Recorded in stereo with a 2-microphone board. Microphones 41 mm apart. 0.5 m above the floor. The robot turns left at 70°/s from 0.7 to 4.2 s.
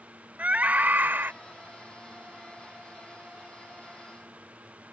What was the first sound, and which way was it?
A scream, 50° right.